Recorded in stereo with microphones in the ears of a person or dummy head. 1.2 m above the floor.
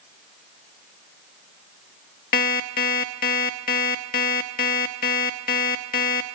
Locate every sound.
2.3 s an alarm clock: 45° left (ahead or behind), 0.7 m